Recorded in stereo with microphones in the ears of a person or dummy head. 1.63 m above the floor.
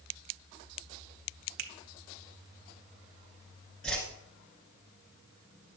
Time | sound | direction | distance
1.6 | a finger snap | 65° right (ahead or behind) | 0.8 m
3.8 | a whoosh | 10° left (ahead or behind) | 1.6 m